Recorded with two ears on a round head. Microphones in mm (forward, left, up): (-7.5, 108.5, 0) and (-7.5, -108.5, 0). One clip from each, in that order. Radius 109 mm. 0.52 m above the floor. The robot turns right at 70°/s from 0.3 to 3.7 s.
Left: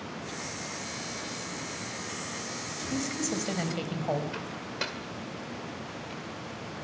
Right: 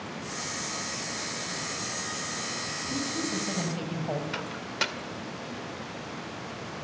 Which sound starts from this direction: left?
A woman speaking, at 2.9 s.